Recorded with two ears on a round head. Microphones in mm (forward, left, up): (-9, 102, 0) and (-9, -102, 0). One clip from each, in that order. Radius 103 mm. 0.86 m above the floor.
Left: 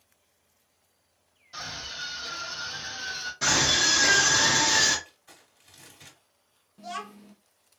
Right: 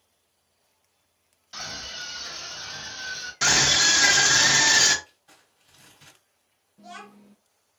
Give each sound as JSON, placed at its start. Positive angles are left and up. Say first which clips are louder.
{"t": 1.5, "sound": "a scream", "louder": "right 1 dB", "side_deg": -35, "distance_m": 2.0}
{"t": 3.4, "sound": "a scream", "louder": "right 3 dB", "side_deg": -40, "distance_m": 1.1}
{"t": 5.0, "sound": "crumpling", "louder": "left 2 dB", "side_deg": 55, "distance_m": 2.5}
{"t": 6.8, "sound": "a child speaking", "louder": "left 6 dB", "side_deg": 25, "distance_m": 0.6}